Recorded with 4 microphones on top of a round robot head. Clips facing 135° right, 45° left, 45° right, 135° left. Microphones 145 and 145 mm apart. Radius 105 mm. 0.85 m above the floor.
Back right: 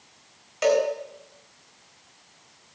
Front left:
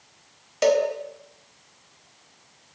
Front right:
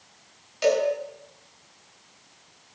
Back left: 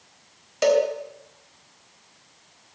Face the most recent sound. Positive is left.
turn(degrees=95)